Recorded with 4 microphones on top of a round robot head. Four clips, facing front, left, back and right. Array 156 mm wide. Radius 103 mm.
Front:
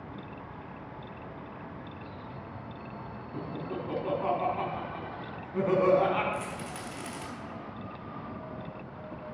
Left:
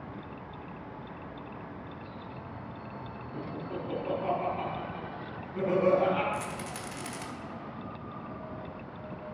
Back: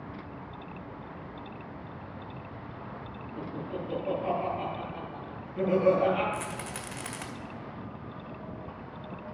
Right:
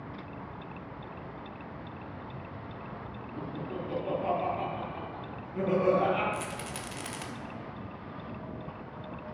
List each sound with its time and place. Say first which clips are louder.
3.3 s laughter: even, even; straight ahead, 4 m
6.3 s a rattle: left 1 dB, even; 165° right, 1.0 m